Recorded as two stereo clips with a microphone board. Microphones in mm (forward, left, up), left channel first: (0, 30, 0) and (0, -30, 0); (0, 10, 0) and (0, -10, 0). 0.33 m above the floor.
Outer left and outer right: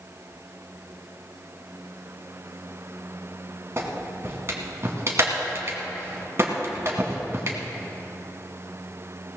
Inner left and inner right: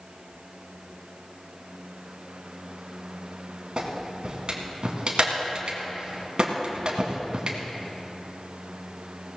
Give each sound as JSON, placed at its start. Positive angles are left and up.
{"t": 3.8, "sound": "a clap", "side_deg": -45, "distance_m": 2.5}